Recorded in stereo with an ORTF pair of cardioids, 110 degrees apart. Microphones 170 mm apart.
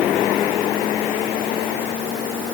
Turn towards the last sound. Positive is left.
No sound to turn to.